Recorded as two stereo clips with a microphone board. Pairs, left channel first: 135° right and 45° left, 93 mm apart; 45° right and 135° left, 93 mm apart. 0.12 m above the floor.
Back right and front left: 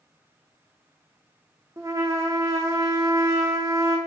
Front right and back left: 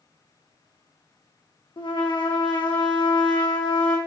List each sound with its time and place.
1.8 s a trumpet: 10° right, 1.2 m